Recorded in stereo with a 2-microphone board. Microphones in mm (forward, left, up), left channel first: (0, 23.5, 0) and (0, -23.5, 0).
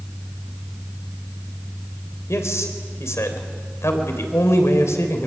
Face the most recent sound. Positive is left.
turn(degrees=70)  # may be behind; listen again after turning